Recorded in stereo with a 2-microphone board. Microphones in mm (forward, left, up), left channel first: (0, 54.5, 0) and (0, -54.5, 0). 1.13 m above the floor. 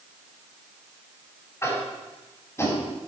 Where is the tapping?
25° left (ahead or behind), 3 m.